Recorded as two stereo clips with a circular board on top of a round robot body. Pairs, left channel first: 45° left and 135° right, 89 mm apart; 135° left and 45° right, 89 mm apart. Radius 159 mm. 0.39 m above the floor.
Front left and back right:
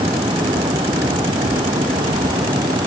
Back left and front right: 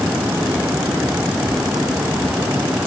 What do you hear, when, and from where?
Only background noise.